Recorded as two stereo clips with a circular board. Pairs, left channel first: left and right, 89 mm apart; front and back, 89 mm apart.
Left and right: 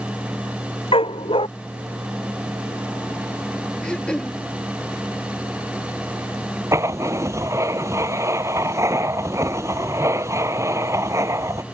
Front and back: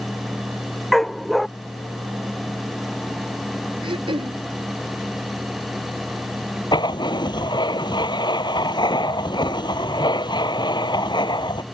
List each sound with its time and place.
0.9 s a dog barking: 90° left
3.8 s throat clearing: 170° left
6.7 s writing: 35° right